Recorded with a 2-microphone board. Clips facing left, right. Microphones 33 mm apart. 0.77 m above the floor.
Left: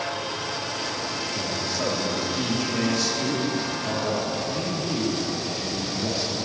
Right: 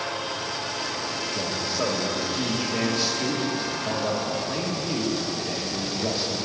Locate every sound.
1.4 s a man speaking: 20° right (ahead or behind), 1.0 m